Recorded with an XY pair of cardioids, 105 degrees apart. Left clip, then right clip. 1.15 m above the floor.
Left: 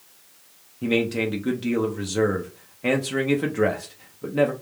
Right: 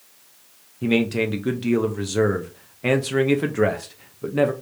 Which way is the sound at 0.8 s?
15° right.